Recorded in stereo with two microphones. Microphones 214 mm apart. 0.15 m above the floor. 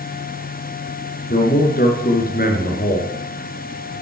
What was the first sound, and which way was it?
A man speaking, 45° left (ahead or behind).